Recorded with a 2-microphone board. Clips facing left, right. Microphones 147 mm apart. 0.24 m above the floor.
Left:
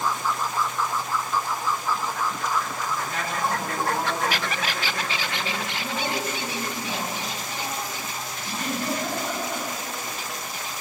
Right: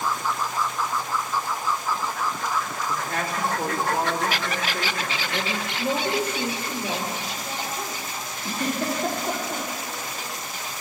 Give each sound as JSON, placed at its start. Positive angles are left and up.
{"t": 2.9, "sound": "a man speaking", "side_deg": -60, "distance_m": 3.5}
{"t": 5.8, "sound": "a woman speaking", "side_deg": -75, "distance_m": 4.5}
{"t": 8.4, "sound": "a giggle", "side_deg": -55, "distance_m": 7.0}